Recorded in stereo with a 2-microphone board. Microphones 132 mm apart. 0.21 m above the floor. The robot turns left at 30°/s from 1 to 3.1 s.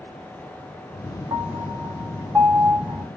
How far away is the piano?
About 1.6 m.